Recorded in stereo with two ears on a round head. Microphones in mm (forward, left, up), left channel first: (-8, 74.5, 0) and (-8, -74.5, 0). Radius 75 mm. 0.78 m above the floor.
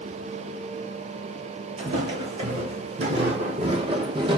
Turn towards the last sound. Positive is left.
turn(degrees=-30)  # may be behind; listen again after turning